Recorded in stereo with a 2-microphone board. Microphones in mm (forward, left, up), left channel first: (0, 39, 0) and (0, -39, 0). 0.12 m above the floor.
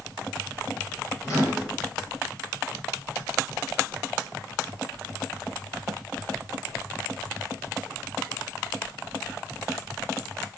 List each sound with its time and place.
1.2 s a microwave: 40° left (ahead or behind), 1.8 m